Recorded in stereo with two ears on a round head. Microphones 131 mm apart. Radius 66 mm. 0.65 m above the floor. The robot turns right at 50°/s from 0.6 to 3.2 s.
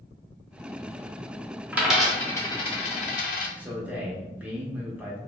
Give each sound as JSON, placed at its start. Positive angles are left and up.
{"t": 1.7, "sound": "a dropped coin", "side_deg": -15, "distance_m": 0.6}
{"t": 3.6, "sound": "a man speaking", "side_deg": -10, "distance_m": 0.6}